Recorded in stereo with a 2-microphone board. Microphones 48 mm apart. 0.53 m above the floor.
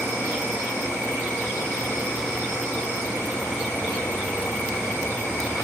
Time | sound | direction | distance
0.0 | an insect | 75° right (ahead or behind) | 1.1 m